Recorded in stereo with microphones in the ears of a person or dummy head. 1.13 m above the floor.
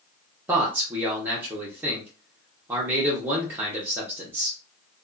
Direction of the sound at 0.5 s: 10° right (ahead or behind).